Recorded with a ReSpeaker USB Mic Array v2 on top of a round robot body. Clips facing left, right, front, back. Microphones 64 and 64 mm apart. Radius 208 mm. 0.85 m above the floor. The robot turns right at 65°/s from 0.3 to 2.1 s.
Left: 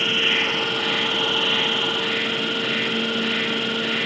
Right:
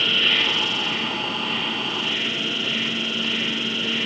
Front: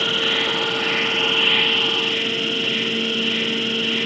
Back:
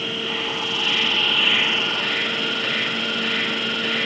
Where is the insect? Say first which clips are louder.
Even, front 5 dB; 15° left, 0.9 m; by 4.1 s 130° left, 0.9 m.